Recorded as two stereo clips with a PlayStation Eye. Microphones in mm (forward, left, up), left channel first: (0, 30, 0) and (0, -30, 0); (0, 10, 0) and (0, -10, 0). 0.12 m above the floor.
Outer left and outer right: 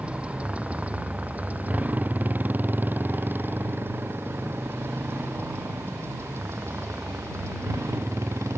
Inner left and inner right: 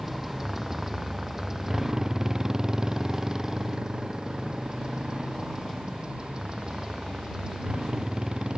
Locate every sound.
0.0 s a motorcycle: 20° right (ahead or behind); by 8.6 s 50° right (ahead or behind)